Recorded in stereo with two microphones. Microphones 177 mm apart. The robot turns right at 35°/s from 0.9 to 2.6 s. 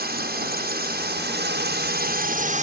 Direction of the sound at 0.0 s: 110° right.